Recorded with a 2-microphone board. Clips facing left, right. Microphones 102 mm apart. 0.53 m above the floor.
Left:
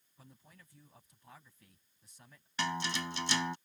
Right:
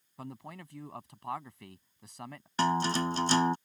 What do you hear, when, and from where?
0.2 s a man speaking: 80° right
2.6 s a guitar: 40° right (ahead or behind)